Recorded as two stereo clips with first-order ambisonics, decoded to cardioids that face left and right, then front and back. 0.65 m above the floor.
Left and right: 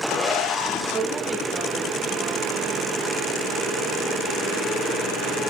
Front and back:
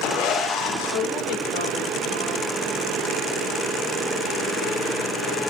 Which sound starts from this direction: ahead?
A woman speaking, at 0.9 s.